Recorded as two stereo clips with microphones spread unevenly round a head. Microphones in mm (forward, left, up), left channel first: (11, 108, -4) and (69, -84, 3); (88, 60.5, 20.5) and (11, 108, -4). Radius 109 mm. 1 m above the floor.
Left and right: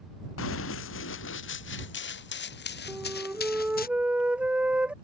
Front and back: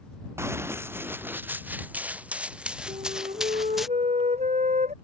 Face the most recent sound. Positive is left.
turn(degrees=-160)